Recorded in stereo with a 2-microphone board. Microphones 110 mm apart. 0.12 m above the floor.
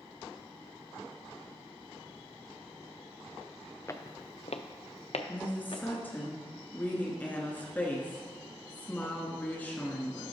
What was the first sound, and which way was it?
Footsteps, 30° left (ahead or behind).